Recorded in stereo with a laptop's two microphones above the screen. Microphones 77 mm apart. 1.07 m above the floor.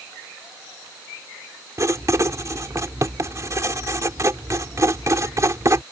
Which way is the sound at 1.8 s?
45° right (ahead or behind).